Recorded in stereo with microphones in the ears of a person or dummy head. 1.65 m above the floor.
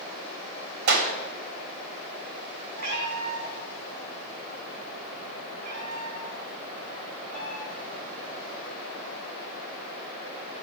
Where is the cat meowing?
45° right (ahead or behind), 3.5 m.